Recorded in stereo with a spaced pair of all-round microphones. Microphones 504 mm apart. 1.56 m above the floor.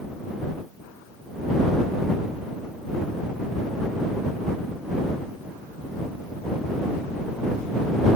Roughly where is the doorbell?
I don't hear a doorbell.